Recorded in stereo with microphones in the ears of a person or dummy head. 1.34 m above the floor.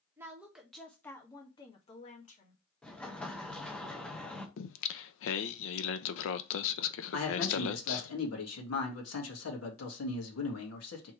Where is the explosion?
5° left (ahead or behind), 0.8 m.